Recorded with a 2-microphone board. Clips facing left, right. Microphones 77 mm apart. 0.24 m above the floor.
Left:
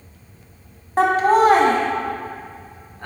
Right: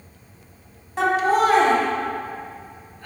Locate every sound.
1.0 s laughter: 45° left (ahead or behind), 1.4 m; by 3.1 s 55° left (ahead or behind), 2 m